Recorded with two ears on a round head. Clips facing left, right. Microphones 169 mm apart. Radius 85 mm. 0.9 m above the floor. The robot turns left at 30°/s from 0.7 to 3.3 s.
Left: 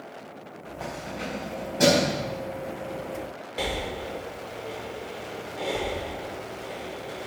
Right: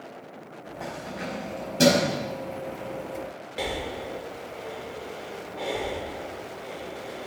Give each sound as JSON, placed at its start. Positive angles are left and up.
{"t": 0.8, "sound": "keys jangling", "side_deg": -10, "distance_m": 4.0}
{"t": 3.6, "sound": "breathing", "side_deg": 0, "distance_m": 1.1}